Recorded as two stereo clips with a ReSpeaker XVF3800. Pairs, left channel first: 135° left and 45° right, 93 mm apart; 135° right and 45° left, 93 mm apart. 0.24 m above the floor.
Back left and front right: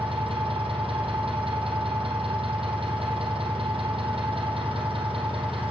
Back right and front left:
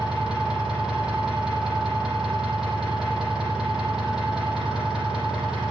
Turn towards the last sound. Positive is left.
turn(degrees=-40)